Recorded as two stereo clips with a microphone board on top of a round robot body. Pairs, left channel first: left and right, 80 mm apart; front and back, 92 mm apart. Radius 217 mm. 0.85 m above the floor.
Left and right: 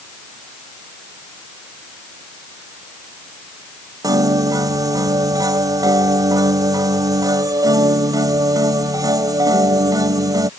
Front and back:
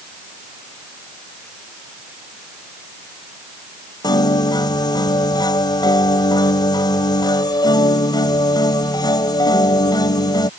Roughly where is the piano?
Ahead right.